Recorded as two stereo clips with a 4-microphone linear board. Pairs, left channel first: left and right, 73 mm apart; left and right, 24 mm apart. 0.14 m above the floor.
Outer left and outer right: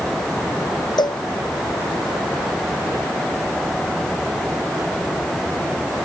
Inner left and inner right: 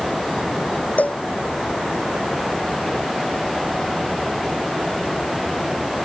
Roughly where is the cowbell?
Left.